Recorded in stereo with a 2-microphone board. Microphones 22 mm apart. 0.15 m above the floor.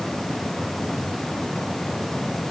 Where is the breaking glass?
I don't hear breaking glass.